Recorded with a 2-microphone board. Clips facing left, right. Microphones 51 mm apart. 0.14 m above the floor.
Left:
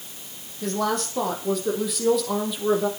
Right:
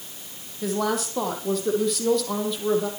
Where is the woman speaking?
5° right (ahead or behind), 6 m; by 2.9 s 10° left (ahead or behind), 5.5 m.